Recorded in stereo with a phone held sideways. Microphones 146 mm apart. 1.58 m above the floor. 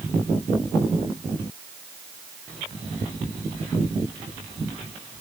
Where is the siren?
I don't hear a siren.